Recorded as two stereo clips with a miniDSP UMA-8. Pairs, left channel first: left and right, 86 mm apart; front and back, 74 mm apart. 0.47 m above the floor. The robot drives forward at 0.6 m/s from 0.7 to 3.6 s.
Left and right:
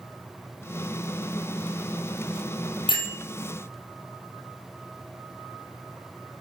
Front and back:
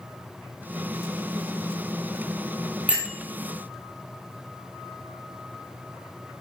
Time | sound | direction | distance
2.9 | a bell | 105° left | 3 m